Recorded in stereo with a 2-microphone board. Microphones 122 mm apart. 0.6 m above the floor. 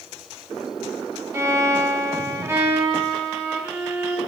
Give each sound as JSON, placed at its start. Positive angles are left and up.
{"t": 1.3, "sound": "a violin", "side_deg": -25, "distance_m": 1.6}